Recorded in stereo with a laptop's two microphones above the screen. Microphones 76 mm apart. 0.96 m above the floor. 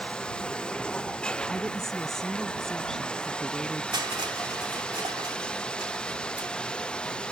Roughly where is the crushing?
Right.